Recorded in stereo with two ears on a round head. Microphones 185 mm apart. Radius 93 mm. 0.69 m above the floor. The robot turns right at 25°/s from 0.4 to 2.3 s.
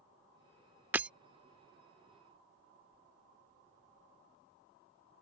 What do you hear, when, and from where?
0.9 s breaking glass: 10° right (ahead or behind); by 1.1 s 5° right (ahead or behind)